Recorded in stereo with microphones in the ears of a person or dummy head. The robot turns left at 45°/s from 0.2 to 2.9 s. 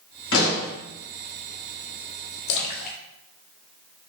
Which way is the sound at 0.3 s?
65° left (ahead or behind).